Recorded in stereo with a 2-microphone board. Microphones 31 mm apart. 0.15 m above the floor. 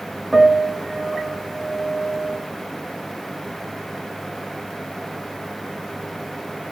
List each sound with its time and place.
0.3 s a piano: 10° right (ahead or behind), 0.6 m